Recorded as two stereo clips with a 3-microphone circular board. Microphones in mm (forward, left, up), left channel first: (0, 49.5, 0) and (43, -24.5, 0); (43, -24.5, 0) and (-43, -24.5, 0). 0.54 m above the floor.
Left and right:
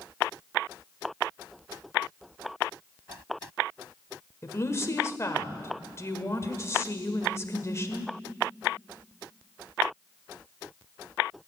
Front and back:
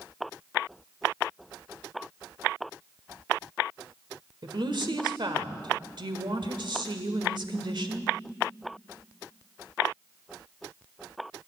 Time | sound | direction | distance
4.4 | a woman speaking | 175° left | 1.5 m